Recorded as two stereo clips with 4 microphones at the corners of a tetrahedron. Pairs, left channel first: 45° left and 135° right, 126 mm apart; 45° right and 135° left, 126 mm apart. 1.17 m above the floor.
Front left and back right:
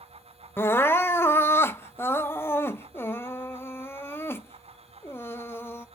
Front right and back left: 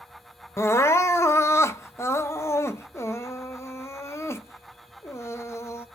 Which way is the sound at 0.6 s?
10° right.